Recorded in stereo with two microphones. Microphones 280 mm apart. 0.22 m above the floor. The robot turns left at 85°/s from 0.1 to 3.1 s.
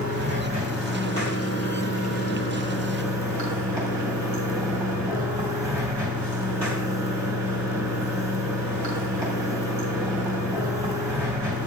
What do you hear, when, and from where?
0.0 s running water: 115° right, 3 m; by 11.7 s 10° right, 3 m